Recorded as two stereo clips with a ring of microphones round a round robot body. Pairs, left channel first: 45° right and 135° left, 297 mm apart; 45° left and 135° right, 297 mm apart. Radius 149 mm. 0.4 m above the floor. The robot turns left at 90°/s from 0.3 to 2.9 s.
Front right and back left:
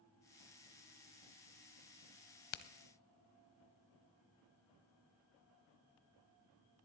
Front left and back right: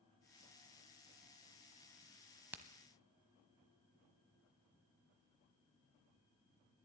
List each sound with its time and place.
2.5 s a crack: 50° right, 0.7 m; by 2.6 s 60° right, 0.7 m